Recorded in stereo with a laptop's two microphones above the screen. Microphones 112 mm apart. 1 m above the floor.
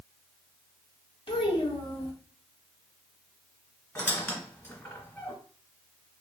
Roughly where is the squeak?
Centre.